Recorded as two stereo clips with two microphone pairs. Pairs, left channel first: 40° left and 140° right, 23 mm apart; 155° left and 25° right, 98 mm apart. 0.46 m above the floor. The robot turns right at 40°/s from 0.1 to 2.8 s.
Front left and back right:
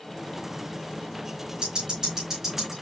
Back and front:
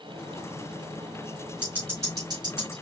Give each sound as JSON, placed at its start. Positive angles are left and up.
{"t": 1.6, "sound": "ticking", "azimuth_deg": -100, "distance_m": 3.5}